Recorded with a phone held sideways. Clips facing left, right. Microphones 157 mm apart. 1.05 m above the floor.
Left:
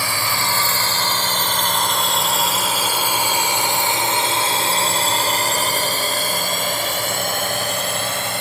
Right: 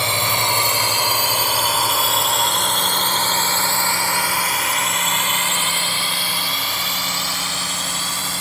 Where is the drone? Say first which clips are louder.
Right 2 dB; 20° right (ahead or behind); by 8.4 s 60° left (ahead or behind).